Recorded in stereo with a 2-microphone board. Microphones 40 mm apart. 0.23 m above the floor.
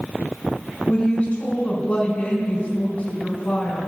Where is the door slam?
I don't hear a door slam.